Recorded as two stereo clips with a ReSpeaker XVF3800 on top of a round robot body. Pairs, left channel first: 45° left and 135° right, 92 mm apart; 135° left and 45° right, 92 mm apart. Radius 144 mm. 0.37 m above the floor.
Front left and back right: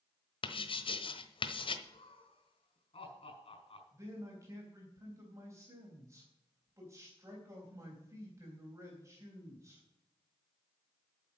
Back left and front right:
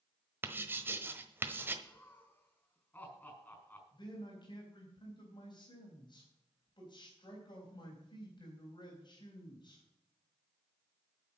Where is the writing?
25° left, 1.2 m.